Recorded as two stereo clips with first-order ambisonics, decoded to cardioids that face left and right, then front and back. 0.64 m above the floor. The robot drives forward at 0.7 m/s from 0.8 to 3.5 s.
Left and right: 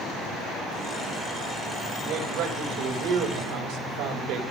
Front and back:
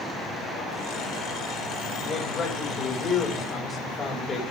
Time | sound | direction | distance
2.0 | a man speaking | 60° right | 4 m